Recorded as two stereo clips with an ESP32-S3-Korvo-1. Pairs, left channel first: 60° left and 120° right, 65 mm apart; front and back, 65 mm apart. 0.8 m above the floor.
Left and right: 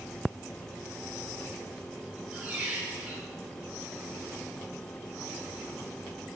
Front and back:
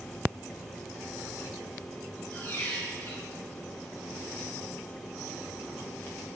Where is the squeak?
55° right, 0.7 m.